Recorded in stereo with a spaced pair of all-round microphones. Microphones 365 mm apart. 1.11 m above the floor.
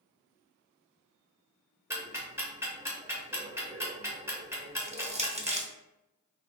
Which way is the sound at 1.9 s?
5° right (ahead or behind).